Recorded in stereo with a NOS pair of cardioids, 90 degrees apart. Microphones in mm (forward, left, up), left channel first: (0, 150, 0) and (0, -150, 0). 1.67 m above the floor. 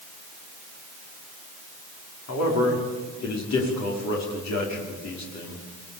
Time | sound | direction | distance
2.3 | a man speaking | 65° left | 5 m